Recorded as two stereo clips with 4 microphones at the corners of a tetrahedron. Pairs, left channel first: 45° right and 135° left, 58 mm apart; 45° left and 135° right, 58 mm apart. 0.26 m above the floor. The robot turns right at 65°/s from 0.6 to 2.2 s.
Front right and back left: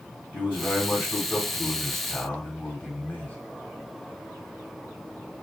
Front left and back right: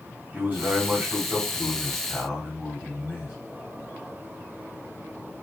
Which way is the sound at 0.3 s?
Straight behind.